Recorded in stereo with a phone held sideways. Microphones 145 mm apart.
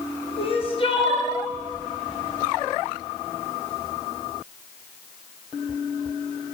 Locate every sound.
0.4 s crying: 40° left (ahead or behind), 0.9 m